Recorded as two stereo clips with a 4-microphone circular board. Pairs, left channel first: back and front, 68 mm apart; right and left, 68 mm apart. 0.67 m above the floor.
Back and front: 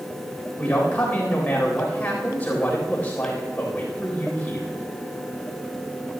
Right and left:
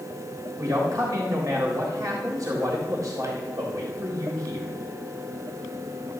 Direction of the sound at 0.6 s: 115° left.